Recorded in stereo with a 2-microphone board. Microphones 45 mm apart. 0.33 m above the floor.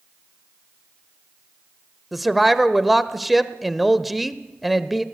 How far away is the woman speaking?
About 1.0 m.